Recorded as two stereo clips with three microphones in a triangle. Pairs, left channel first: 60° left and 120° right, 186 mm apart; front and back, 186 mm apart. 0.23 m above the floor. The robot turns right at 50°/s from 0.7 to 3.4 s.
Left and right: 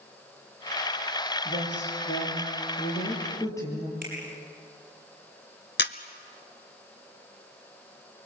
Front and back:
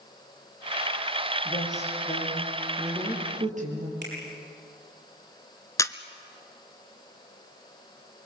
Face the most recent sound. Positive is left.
turn(degrees=75)